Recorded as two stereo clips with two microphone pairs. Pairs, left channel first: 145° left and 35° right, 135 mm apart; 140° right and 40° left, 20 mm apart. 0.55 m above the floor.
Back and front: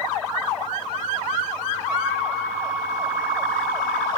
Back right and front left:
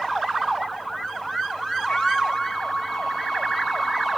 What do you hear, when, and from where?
1.9 s a flute: 120° right, 9.5 m